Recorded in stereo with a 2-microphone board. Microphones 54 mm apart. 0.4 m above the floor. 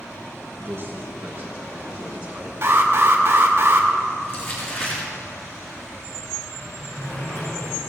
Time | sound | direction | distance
0.6 | a man speaking | 45° right (ahead or behind) | 5.5 m
2.6 | an alarm | 45° right (ahead or behind) | 2 m
4.2 | crumpling | 40° left (ahead or behind) | 6.5 m
6.5 | a sliding door | 45° left (ahead or behind) | 6 m